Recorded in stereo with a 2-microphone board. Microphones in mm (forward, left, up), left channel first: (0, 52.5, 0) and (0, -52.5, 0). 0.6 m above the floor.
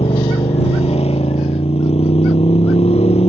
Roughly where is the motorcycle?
Left.